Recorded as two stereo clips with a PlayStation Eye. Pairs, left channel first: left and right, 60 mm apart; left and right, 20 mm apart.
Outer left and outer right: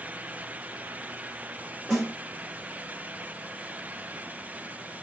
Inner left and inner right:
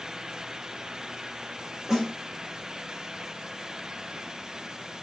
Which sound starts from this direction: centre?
A snare drum, at 1.9 s.